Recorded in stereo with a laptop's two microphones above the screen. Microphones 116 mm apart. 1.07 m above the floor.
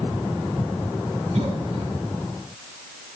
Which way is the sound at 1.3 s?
60° right (ahead or behind).